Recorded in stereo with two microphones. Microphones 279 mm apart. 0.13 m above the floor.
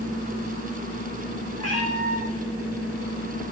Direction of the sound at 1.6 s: 70° left (ahead or behind).